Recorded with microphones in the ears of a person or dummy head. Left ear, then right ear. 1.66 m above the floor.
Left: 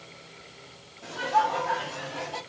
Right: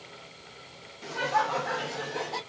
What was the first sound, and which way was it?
Laughter, 60° right (ahead or behind).